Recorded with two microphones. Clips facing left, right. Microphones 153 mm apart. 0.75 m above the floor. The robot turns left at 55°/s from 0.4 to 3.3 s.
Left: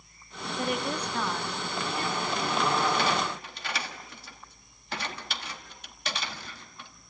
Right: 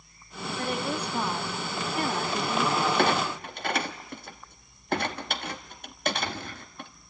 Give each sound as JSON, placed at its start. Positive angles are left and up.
{"t": 0.6, "sound": "a woman speaking", "azimuth_deg": 15, "distance_m": 0.9}
{"t": 3.0, "sound": "a clunk", "side_deg": -55, "distance_m": 1.1}